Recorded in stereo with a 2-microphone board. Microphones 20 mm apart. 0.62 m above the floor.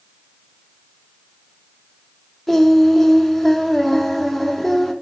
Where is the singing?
10° left (ahead or behind), 0.9 m.